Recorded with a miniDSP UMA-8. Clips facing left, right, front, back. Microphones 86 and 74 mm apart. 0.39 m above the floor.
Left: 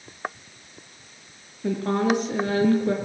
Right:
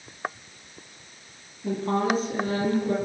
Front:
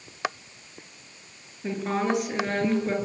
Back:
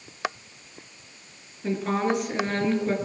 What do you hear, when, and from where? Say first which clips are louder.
1.6 s a woman speaking: left 2 dB, back 1 dB; 90° left, 6.5 m